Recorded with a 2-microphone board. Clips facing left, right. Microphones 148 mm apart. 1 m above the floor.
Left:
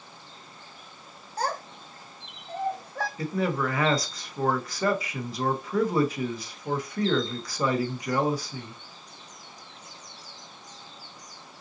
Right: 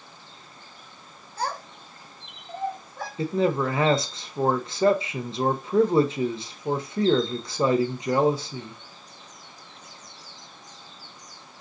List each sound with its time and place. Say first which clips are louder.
1.4 s a child speaking: left 1 dB; 40° left (ahead or behind), 1.2 m; by 3.1 s 80° left, 1.4 m
3.2 s a man speaking: right 5 dB; 25° right (ahead or behind), 0.6 m